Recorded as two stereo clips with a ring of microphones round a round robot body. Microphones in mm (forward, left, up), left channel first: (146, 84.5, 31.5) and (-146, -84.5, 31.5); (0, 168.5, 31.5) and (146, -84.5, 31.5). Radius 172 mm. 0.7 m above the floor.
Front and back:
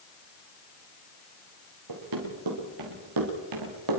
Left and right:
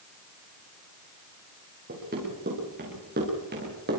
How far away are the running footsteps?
About 7 m.